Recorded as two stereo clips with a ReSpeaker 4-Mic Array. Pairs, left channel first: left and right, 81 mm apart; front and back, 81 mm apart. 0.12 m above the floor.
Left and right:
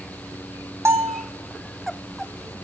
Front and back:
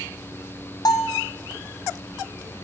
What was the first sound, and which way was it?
A bell, 35° right.